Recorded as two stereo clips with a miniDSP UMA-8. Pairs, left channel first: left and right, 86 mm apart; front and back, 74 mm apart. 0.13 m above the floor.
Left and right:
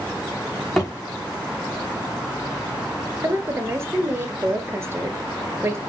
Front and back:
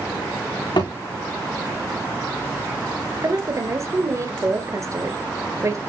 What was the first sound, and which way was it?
A thud, 5° left.